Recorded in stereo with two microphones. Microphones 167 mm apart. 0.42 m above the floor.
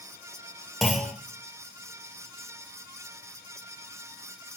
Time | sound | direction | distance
0.8 | a clunk | centre (ahead or behind) | 0.7 m